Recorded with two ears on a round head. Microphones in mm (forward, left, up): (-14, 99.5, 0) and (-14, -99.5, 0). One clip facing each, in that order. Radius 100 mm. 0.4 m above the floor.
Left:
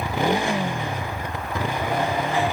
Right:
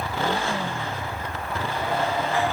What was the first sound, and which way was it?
A motorcycle, 15° left (ahead or behind).